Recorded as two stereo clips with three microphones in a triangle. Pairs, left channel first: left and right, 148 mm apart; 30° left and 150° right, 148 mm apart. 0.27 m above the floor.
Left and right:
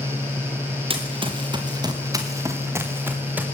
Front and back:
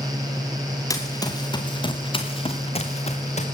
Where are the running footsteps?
40° right, 3 m; by 3.4 s 10° right, 3 m.